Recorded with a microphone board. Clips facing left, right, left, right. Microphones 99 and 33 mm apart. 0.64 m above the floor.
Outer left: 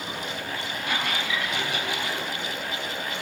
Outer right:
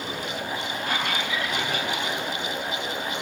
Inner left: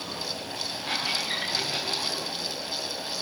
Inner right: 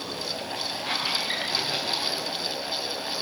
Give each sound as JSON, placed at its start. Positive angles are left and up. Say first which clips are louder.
{"t": 0.8, "sound": "a squeak", "louder": "even, inner right 1 dB", "side_deg": -45, "distance_m": 7.5}